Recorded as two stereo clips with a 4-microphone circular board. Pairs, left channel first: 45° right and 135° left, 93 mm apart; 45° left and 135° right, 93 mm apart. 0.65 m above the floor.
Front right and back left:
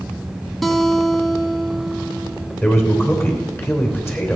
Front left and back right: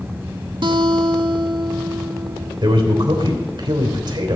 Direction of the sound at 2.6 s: 105° right.